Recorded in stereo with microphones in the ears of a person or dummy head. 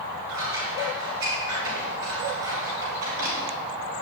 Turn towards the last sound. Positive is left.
turn(degrees=-80)